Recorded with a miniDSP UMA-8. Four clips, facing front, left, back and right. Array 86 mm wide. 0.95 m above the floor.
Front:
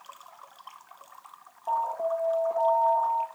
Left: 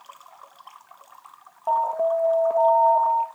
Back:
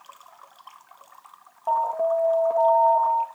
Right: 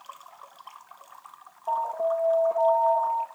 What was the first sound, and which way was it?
An alarm, 130° left.